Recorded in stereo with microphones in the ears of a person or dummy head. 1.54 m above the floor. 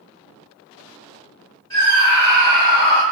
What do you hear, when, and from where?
1.7 s a scream: 20° left (ahead or behind), 1.7 m; by 3.0 s 35° left (ahead or behind), 0.7 m